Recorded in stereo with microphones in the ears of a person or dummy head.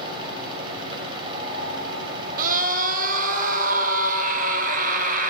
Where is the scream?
50° right (ahead or behind), 1.0 m.